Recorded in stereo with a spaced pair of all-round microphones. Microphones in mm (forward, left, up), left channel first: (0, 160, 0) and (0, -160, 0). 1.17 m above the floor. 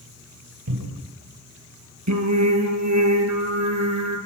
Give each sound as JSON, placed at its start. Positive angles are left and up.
{"t": 0.7, "sound": "a cupboard door", "side_deg": -85, "distance_m": 4.0}
{"t": 2.1, "sound": "singing", "side_deg": -60, "distance_m": 4.5}